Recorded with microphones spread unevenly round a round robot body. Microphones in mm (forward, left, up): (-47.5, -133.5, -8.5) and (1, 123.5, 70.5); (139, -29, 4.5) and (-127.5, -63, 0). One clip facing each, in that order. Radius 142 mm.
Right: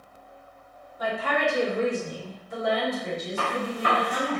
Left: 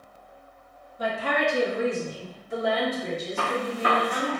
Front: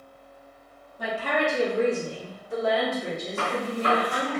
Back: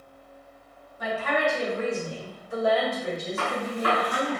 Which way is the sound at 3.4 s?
65° left.